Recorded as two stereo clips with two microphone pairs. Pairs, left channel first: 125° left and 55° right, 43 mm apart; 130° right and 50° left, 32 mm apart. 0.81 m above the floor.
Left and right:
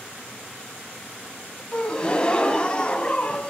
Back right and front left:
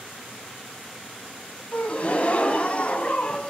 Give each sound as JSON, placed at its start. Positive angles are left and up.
{"t": 1.7, "sound": "a gasp", "azimuth_deg": -170, "distance_m": 1.2}